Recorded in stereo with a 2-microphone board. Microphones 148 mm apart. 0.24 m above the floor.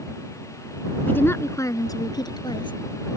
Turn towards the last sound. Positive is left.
turn(degrees=30)  # may be behind; listen again after turning